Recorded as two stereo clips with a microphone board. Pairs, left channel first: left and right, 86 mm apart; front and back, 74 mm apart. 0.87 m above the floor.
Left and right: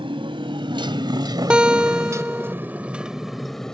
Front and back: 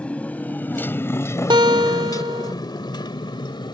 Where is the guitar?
170° right.